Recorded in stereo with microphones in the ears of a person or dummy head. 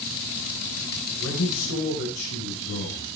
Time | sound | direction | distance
1.2 | a man speaking | 90° left | 4.5 m